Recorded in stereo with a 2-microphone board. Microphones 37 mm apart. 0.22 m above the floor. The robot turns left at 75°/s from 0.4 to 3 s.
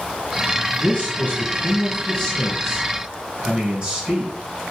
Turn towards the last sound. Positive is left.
turn(degrees=-30)